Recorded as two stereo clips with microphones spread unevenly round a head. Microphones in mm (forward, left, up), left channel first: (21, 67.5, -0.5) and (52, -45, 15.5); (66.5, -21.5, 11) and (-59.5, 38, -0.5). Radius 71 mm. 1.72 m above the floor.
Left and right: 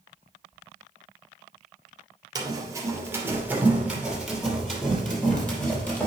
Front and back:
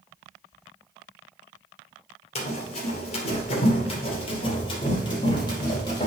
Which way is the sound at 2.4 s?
35° right.